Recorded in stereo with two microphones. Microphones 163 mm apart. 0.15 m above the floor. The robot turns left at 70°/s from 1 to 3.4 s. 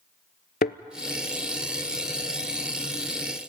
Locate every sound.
0.6 s a thud: 70° left (ahead or behind), 0.6 m